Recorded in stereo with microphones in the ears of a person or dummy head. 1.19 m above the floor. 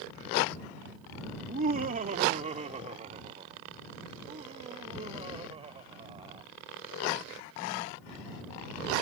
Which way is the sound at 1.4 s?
45° right (ahead or behind).